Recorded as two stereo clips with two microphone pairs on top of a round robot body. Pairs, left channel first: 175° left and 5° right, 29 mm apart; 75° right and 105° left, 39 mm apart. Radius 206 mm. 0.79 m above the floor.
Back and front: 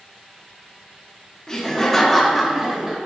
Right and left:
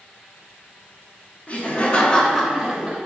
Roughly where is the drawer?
I don't hear a drawer.